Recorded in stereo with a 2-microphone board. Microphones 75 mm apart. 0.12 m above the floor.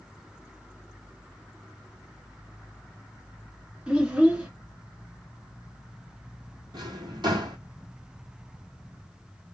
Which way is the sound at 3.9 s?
15° right (ahead or behind).